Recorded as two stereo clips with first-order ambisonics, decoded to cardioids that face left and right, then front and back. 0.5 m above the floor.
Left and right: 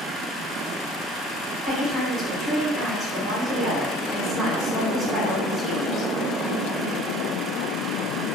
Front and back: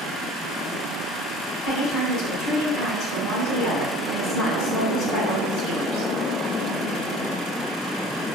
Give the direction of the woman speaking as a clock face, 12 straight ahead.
12 o'clock.